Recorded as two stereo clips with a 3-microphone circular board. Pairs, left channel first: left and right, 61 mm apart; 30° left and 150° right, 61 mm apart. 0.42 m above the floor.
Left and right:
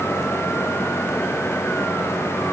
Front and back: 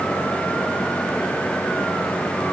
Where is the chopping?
No chopping in this recording.